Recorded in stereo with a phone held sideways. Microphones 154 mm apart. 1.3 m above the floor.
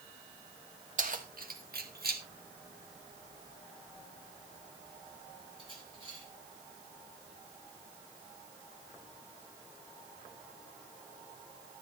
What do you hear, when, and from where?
1.0 s keys jangling: 55° right (ahead or behind), 1.9 m; by 6.2 s 35° right (ahead or behind), 5 m